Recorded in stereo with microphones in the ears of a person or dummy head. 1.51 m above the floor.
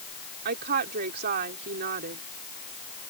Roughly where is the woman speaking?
Right.